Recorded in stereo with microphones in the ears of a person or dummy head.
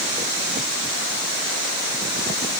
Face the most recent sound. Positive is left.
No sound to turn to.